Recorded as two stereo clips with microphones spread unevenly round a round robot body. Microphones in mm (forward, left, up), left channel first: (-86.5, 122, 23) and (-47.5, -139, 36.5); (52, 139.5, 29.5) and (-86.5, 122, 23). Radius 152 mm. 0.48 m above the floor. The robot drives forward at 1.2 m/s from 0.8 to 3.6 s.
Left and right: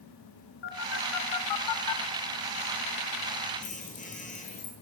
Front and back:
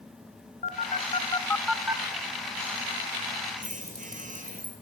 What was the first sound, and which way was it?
A phone buzzing, 40° left.